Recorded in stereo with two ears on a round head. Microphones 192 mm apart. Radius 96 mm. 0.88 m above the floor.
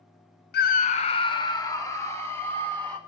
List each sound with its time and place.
0.5 s a scream: 50° left (ahead or behind), 0.6 m; by 3.0 s 10° left (ahead or behind), 2.5 m